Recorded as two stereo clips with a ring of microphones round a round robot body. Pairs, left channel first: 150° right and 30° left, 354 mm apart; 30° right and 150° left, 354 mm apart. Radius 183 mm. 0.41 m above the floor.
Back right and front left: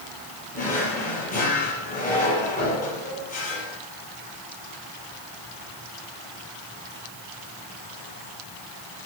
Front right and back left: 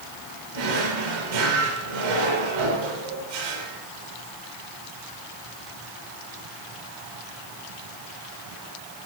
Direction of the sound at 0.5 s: 140° left.